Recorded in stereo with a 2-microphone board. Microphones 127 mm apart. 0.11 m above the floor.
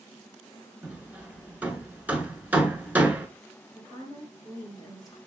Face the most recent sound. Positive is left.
turn(degrees=30)  # may be behind; listen again after turning